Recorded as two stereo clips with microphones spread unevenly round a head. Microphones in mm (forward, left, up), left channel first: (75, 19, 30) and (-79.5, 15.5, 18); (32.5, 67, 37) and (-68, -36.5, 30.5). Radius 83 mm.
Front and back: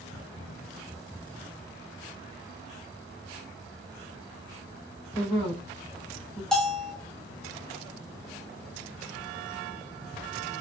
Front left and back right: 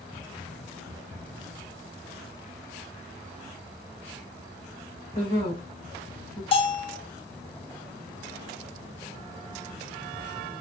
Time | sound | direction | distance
5.1 | a woman speaking | 75° left | 2.5 m
6.5 | a bell | 85° left | 0.6 m